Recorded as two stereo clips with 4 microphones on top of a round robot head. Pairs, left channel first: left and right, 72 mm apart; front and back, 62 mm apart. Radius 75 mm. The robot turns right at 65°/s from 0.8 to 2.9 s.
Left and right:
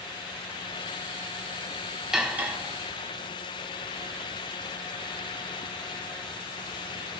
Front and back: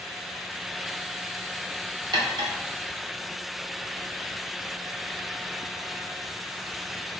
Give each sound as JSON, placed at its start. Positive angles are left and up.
{"t": 2.1, "sound": "cutlery clinking", "azimuth_deg": -170, "distance_m": 1.4}